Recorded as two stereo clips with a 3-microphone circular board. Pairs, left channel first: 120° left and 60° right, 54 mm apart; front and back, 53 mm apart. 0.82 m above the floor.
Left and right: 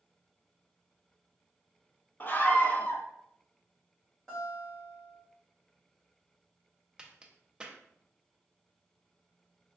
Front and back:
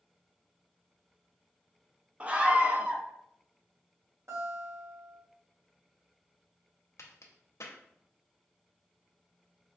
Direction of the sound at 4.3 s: 165° right.